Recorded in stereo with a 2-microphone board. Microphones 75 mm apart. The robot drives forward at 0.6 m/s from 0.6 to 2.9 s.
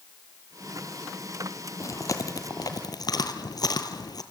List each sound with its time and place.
1.8 s chewing: 45° left (ahead or behind), 2.0 m; by 4.2 s 60° left (ahead or behind), 1.6 m